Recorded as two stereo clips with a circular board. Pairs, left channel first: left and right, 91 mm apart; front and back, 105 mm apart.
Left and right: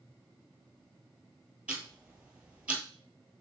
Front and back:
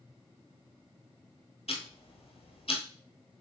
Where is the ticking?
10° right, 1.2 m.